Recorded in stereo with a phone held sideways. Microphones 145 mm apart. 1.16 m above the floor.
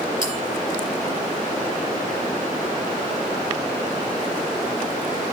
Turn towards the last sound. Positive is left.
turn(degrees=-35)  # may be behind; listen again after turning